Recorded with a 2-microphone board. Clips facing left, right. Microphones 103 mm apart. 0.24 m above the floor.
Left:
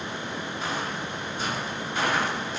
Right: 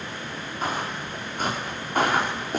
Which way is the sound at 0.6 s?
50° right (ahead or behind).